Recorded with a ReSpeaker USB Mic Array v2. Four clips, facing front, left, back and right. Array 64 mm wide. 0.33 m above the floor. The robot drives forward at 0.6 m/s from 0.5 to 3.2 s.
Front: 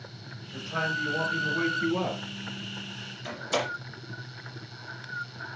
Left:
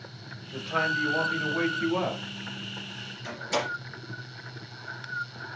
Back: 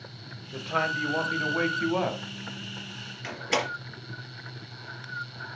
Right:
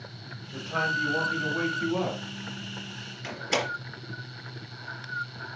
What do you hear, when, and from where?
0.5 s a man speaking: 165° left, 1.4 m; by 2.2 s 175° left, 2 m
3.2 s a door slam: 150° right, 4 m